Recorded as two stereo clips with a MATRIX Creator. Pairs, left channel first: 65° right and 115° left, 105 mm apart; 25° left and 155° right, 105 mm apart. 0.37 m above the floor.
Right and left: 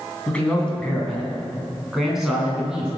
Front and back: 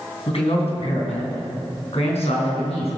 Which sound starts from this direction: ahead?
A man speaking, at 0.3 s.